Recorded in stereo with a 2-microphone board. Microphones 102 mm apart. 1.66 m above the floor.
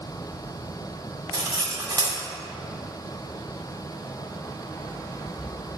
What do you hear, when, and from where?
1.3 s cutlery clinking: 35° right (ahead or behind), 1.6 m